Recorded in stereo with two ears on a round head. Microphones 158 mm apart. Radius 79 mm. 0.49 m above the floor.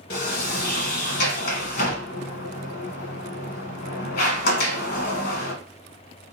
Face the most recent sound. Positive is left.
turn(degrees=55)  # may be behind; listen again after turning